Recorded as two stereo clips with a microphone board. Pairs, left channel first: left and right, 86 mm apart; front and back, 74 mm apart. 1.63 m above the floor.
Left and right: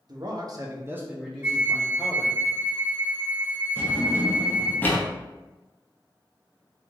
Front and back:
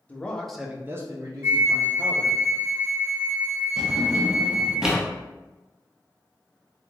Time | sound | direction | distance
0.1 | a man speaking | 65° right | 0.8 m
1.4 | a flute | 140° right | 0.6 m
3.8 | a drawer | 110° left | 0.7 m